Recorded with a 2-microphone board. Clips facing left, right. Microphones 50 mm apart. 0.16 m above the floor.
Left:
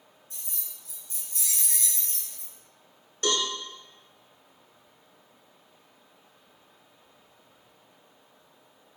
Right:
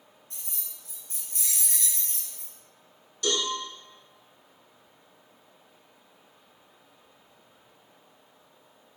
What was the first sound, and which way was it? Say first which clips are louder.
Keys jangling: even; 55° right (ahead or behind).